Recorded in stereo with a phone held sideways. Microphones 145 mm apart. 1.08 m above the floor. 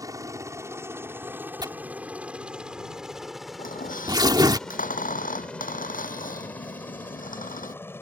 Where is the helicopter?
25° right (ahead or behind); by 8.0 s 15° left (ahead or behind).